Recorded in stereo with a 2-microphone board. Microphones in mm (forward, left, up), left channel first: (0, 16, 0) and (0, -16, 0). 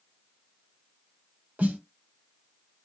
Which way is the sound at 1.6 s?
45° right (ahead or behind).